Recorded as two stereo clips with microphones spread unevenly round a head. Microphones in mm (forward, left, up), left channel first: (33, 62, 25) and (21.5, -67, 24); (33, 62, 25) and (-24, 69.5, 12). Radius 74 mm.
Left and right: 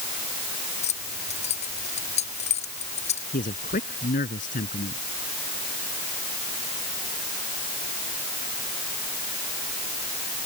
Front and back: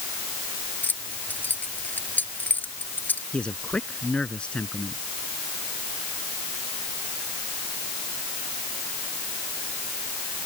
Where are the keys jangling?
50° left.